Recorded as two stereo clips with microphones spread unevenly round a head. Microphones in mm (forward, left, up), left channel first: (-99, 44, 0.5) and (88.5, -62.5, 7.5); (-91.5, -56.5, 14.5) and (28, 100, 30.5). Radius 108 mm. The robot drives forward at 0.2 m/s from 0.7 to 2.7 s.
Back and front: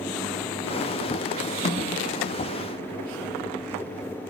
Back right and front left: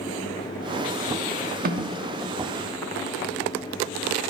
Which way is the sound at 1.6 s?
90° left.